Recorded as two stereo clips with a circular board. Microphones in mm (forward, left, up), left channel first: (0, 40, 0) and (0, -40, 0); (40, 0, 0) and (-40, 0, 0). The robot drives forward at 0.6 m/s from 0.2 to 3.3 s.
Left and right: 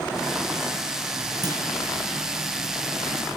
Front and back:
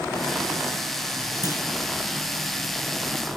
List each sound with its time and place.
1.4 s a clunk: 50° right, 10 m; by 1.6 s 55° right, 9.5 m